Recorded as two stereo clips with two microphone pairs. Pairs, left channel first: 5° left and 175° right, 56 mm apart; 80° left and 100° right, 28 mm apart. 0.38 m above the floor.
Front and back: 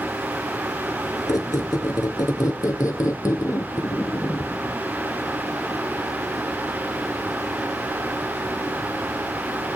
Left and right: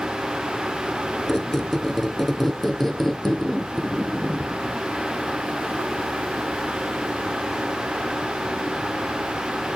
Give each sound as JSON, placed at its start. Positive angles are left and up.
{"t": 1.3, "sound": "a squeak", "azimuth_deg": -5, "distance_m": 1.0}